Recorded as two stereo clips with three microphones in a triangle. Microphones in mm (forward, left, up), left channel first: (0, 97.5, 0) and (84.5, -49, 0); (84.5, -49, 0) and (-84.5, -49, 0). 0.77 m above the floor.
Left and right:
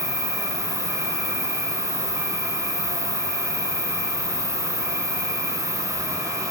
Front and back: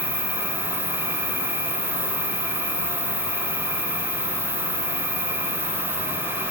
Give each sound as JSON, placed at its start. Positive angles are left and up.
{"t": 0.0, "sound": "an insect", "azimuth_deg": 115, "distance_m": 1.9}